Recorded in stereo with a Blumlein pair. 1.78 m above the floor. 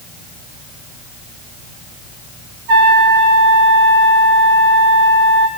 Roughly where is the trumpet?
Ahead right.